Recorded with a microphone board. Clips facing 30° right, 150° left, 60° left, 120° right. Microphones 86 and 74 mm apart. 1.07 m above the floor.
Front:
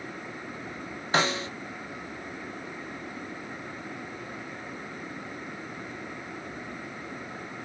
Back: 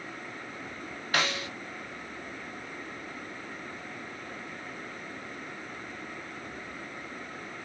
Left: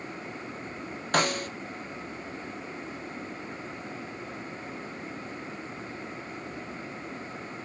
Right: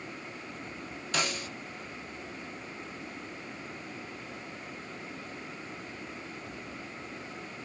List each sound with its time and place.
1.1 s a snare drum: 30° left, 0.7 m